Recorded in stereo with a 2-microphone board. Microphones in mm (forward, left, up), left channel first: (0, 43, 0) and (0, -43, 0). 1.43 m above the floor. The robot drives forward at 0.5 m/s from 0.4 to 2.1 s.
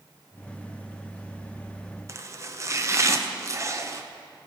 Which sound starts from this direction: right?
Chopping, at 2.1 s.